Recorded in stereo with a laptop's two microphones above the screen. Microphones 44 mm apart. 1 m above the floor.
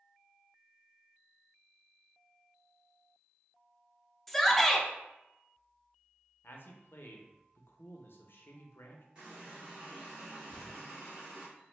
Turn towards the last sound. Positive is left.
turn(degrees=-25)  # may be behind; listen again after turning